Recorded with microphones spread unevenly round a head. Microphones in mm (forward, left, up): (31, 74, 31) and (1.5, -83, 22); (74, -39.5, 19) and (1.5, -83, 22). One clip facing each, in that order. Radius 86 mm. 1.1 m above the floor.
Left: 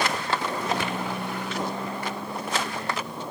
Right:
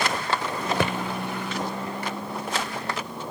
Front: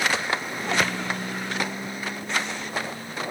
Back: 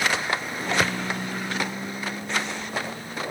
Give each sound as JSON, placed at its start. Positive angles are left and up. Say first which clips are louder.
{"t": 0.8, "sound": "a thud", "louder": "right 5 dB, back 1 dB", "azimuth_deg": -65}